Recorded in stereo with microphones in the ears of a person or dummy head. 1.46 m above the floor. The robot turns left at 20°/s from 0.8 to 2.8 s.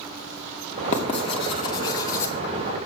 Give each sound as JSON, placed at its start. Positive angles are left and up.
{"t": 0.9, "sound": "writing", "side_deg": 40, "distance_m": 1.8}